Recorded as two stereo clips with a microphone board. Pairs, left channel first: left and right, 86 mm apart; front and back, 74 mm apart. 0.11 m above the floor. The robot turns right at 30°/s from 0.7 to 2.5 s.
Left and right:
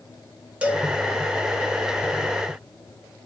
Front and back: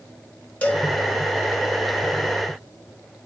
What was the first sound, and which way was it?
A cowbell, 40° right.